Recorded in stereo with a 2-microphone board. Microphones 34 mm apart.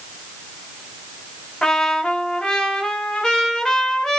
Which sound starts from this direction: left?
A trumpet, at 1.6 s.